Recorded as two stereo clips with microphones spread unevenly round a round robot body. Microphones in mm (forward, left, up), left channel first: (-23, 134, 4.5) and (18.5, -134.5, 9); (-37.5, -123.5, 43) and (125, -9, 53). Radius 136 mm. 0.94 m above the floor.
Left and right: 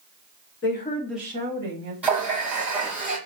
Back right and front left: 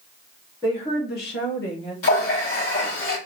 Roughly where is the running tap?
Behind.